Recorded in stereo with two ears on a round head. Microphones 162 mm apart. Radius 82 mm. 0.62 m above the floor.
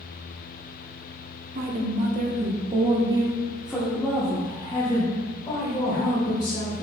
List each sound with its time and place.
1.6 s a woman speaking: 55° right (ahead or behind), 0.9 m; by 6.8 s 25° left (ahead or behind), 2.5 m